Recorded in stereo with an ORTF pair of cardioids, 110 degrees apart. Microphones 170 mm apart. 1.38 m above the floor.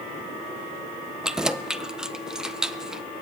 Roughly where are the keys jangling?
Ahead.